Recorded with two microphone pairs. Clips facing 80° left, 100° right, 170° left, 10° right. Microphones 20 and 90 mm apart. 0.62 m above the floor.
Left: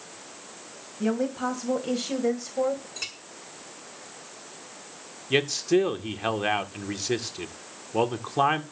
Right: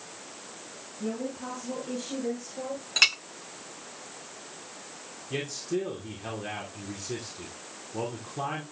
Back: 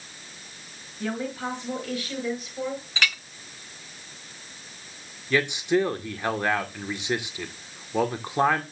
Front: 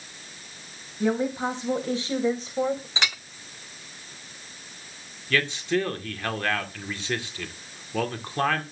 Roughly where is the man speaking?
Left.